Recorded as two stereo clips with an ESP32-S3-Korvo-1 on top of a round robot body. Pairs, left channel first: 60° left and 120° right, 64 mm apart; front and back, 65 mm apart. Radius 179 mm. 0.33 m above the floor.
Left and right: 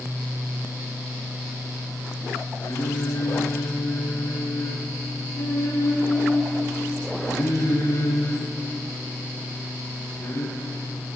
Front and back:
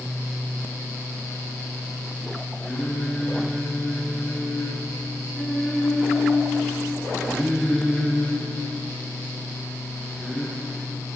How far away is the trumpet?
I don't hear a trumpet.